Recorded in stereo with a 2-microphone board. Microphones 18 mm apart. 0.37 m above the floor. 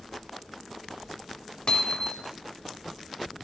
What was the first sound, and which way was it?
Hammering, 50° left (ahead or behind).